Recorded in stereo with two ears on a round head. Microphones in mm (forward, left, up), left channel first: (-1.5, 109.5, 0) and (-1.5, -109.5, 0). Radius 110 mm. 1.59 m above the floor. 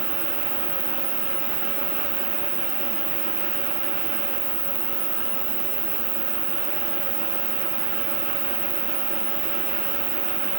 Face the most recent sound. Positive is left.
turn(degrees=-15)  # may be behind; listen again after turning